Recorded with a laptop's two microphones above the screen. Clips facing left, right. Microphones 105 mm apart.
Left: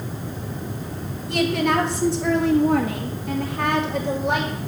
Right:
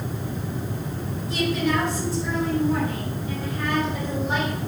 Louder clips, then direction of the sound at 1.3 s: Left 3 dB; 60° left (ahead or behind).